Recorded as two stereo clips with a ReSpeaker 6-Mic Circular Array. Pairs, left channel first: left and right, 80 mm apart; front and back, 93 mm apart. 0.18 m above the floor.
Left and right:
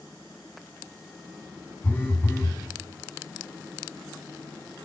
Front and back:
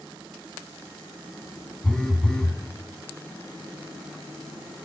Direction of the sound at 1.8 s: 75° left.